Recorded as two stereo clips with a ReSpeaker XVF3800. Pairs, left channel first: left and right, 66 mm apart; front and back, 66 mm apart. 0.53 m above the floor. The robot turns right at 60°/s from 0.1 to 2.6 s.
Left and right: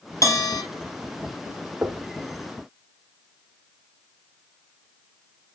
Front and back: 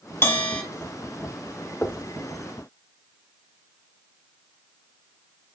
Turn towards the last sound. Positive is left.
turn(degrees=-15)